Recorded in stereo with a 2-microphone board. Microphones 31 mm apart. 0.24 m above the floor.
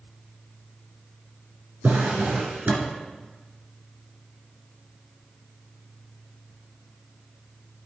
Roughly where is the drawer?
Right.